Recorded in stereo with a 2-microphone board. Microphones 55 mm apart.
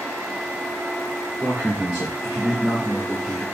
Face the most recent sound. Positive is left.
turn(degrees=5)  # may be behind; listen again after turning